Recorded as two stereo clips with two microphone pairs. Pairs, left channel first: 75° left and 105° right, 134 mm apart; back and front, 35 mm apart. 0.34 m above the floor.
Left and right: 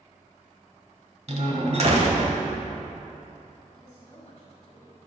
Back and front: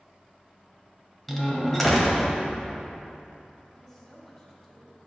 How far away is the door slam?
About 1.6 m.